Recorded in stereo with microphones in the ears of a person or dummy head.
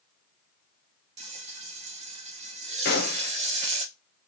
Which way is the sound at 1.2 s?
30° right (ahead or behind).